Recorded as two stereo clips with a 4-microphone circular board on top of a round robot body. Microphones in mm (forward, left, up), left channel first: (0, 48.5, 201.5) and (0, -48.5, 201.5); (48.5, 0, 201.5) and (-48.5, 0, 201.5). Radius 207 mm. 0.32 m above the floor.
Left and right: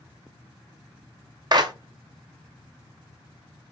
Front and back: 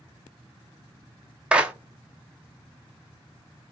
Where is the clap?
105° right, 0.8 m.